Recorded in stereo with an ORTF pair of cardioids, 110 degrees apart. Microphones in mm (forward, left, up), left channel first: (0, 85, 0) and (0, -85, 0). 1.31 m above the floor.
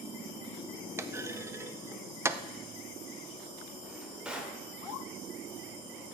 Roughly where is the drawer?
Ahead.